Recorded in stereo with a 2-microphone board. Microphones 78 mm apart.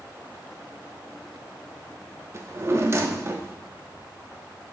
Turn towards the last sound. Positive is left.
turn(degrees=-35)  # may be behind; listen again after turning